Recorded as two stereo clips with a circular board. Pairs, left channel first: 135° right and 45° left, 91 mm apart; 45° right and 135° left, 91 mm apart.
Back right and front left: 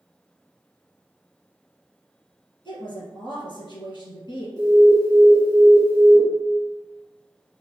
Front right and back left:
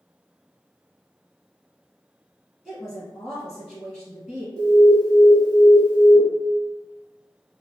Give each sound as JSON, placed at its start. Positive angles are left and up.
{"t": 2.6, "sound": "a woman speaking", "azimuth_deg": -130, "distance_m": 2.0}
{"t": 4.6, "sound": "an alarm", "azimuth_deg": 10, "distance_m": 1.1}